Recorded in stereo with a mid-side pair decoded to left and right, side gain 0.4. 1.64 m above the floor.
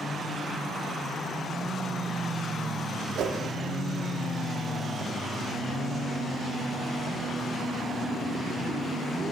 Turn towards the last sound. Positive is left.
turn(degrees=-70)